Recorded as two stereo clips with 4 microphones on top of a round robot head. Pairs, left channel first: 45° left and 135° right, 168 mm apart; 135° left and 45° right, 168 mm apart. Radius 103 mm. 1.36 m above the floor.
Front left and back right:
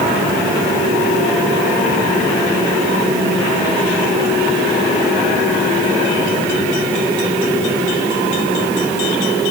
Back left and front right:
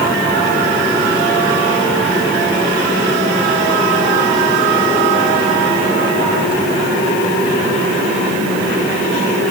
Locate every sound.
Only background noise.